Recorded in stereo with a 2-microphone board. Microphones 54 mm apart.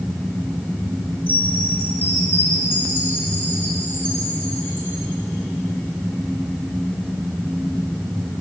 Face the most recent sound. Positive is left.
turn(degrees=30)  # may be behind; listen again after turning